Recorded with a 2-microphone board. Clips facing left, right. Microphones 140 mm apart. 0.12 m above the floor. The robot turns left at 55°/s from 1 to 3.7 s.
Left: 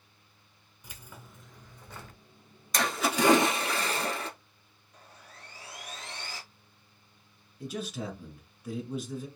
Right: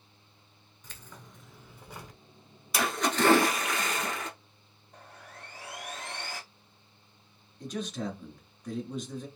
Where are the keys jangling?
10° left (ahead or behind), 0.8 m; by 2.2 s 20° right (ahead or behind), 0.8 m.